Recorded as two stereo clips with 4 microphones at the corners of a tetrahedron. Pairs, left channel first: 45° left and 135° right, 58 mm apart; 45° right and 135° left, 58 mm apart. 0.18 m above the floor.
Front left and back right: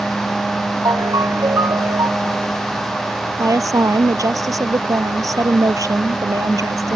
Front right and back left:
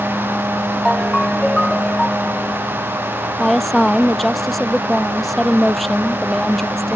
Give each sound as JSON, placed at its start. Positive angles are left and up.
{"t": 0.8, "sound": "a ringtone", "azimuth_deg": -125}
{"t": 3.4, "sound": "a woman speaking", "azimuth_deg": -135}